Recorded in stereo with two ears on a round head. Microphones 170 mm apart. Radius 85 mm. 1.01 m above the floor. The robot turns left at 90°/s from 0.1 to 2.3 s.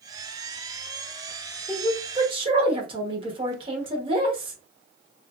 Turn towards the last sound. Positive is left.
turn(degrees=-40)